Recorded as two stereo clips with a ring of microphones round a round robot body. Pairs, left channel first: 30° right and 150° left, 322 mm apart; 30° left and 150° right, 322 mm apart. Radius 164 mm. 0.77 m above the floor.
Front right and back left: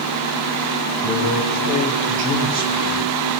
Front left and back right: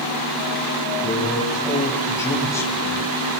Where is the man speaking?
110° left, 6.5 m.